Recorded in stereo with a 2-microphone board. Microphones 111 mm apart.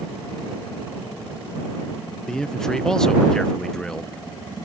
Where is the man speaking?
5° left (ahead or behind).